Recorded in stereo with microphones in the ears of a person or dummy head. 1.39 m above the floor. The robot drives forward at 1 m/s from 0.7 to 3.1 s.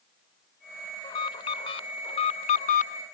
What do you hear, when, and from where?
1.0 s an alarm: 25° left (ahead or behind); by 3.0 s 50° left (ahead or behind)